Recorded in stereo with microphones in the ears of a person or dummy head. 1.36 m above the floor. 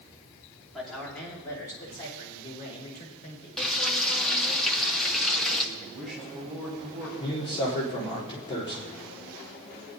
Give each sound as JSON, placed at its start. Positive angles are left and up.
{"t": 0.7, "sound": "a man speaking", "side_deg": 0, "distance_m": 3.5}
{"t": 3.6, "sound": "frying", "side_deg": 0, "distance_m": 1.2}
{"t": 5.8, "sound": "a man speaking", "side_deg": 0, "distance_m": 5.5}
{"t": 7.2, "sound": "a man speaking", "side_deg": 30, "distance_m": 3.5}